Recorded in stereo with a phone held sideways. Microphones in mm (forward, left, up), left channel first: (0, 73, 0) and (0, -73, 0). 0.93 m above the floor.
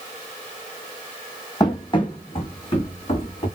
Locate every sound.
1.6 s running footsteps: 25° left (ahead or behind), 1.5 m; by 3.5 s 45° left (ahead or behind), 3 m